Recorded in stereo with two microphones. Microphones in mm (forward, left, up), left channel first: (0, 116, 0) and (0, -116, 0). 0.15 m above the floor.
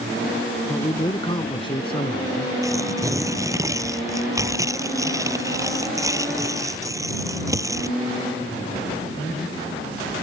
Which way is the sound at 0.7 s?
15° left (ahead or behind).